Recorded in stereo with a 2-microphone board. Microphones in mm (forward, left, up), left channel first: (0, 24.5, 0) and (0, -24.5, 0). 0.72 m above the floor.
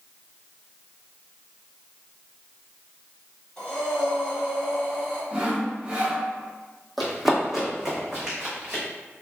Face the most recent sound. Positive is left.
turn(degrees=-15)  # may be behind; listen again after turning